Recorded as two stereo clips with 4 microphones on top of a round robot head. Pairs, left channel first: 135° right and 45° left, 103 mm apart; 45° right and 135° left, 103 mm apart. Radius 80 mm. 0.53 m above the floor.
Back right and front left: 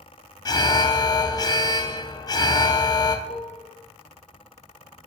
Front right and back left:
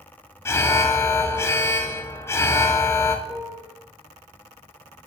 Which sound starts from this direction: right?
An alarm, at 0.5 s.